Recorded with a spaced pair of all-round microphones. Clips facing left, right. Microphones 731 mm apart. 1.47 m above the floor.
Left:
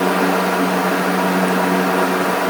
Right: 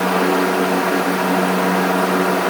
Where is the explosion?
I don't hear an explosion.